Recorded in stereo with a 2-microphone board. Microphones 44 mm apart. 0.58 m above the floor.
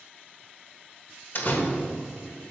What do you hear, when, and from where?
1.4 s a door slam: 50° left (ahead or behind), 1.4 m